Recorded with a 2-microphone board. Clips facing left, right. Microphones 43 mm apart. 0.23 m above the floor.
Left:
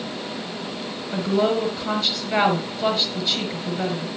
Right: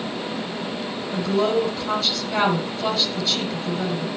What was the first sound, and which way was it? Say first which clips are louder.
A woman speaking: even; 30° left (ahead or behind).